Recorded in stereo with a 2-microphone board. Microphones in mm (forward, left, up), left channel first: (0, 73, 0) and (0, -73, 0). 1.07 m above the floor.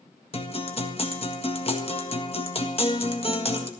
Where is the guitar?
40° left (ahead or behind), 1.6 m.